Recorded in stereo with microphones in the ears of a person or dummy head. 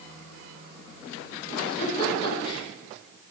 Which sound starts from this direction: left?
A giggle, at 1.7 s.